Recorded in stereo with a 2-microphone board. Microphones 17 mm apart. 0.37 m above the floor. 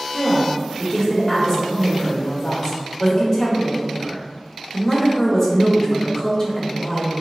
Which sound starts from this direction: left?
A woman speaking, at 0.1 s.